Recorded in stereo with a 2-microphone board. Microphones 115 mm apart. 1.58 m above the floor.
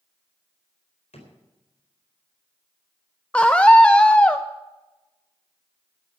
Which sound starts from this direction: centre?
A scream, at 3.3 s.